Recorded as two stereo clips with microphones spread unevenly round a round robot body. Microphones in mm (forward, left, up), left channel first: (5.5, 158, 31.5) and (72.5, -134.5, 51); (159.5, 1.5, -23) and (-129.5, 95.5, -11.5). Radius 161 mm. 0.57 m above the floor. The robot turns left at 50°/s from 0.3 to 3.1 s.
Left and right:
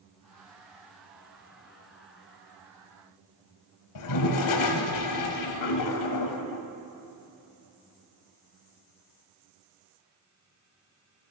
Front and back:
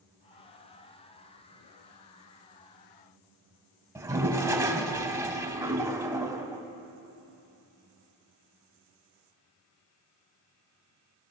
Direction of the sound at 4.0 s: 85° left.